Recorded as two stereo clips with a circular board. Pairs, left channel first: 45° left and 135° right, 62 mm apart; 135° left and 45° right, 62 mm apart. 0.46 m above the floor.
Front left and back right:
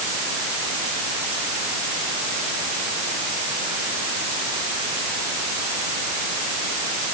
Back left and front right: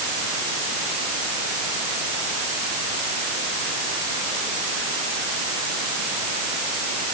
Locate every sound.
Only background noise.